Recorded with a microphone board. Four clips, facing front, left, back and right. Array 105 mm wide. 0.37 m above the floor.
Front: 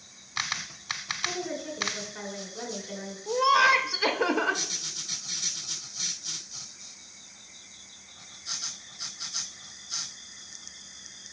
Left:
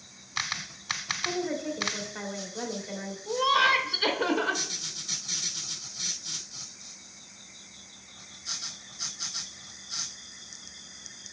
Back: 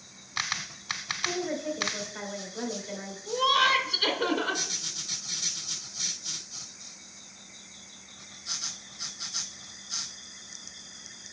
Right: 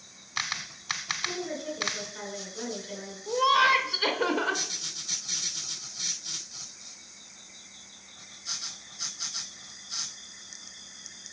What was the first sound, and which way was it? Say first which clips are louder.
A woman speaking: left 4 dB, back 3 dB; 110° left.